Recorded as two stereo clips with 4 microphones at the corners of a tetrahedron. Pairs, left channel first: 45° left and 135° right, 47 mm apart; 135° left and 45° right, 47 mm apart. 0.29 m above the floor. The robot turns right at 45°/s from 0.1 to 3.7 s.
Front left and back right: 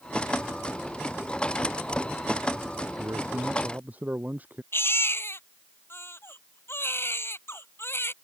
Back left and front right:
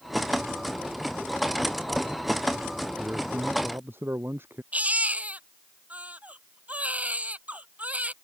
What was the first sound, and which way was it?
A man speaking, 110° right.